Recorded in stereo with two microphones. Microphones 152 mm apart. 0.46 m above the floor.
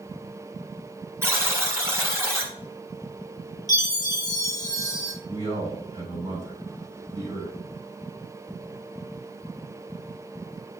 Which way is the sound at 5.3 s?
20° right (ahead or behind).